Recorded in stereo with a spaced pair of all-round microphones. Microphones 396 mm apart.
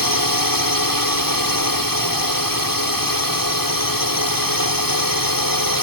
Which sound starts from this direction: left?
A drone, at 0.0 s.